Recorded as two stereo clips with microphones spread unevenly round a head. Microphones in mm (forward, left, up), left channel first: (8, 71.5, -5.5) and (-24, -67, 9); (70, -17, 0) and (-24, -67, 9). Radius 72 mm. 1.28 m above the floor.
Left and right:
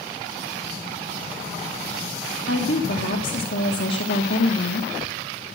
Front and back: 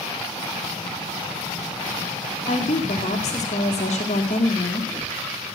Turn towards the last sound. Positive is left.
turn(degrees=75)